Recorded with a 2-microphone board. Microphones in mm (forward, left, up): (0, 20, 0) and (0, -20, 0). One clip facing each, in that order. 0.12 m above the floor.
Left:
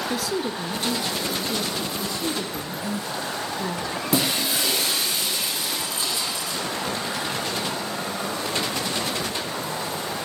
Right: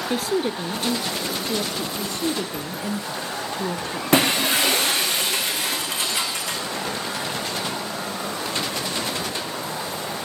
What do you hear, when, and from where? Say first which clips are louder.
0.1 s a woman speaking: right 3 dB; 35° right (ahead or behind), 1.6 m; by 1.9 s 60° right (ahead or behind), 2 m
2.0 s a woman speaking: right 2 dB; 50° right (ahead or behind), 2.5 m
4.1 s breaking glass: right 6 dB; 65° right (ahead or behind), 4.5 m